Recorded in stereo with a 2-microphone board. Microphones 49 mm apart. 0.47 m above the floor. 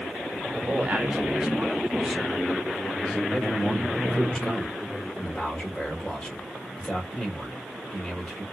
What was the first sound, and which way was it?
A man speaking, 30° right (ahead or behind).